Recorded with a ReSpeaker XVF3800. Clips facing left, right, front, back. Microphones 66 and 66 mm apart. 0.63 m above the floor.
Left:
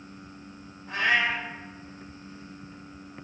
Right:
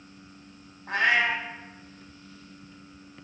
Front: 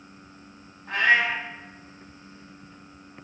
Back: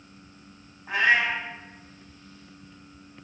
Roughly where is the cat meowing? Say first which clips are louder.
Right 1 dB, front 1 dB; right.